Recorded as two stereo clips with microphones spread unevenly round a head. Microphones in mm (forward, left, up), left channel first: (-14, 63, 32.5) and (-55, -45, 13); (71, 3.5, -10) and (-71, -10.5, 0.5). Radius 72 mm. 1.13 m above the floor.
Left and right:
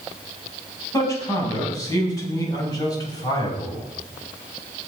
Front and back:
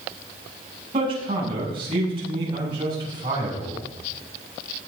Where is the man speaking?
130° left, 7.5 m; by 3.8 s 125° left, 6.5 m.